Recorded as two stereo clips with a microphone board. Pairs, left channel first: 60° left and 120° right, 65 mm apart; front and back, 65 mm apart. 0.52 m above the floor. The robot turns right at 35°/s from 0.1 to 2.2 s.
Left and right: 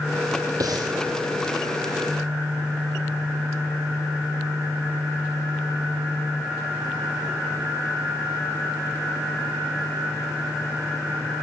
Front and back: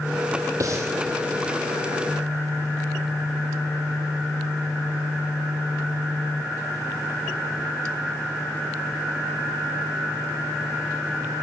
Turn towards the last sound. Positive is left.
turn(degrees=-90)